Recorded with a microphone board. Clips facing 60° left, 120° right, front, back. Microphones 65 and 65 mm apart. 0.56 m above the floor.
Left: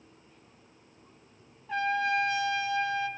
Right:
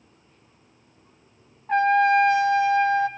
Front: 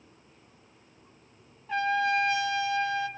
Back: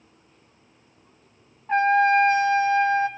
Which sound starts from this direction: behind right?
A trumpet, at 1.7 s.